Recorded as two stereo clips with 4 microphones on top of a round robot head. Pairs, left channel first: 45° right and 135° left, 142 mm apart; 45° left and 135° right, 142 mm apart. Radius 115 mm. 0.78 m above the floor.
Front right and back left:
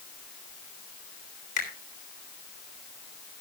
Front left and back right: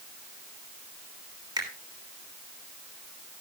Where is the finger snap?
75° right, 3.5 m.